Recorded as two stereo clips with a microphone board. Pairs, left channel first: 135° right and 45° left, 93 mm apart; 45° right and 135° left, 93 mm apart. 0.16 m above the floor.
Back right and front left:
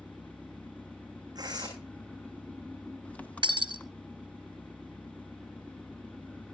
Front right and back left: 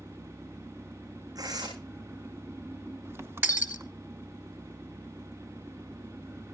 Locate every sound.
0.0 s an engine running: 165° left, 1.1 m
1.4 s tearing paper: 90° left, 10 m
3.4 s breaking glass: 70° left, 1.3 m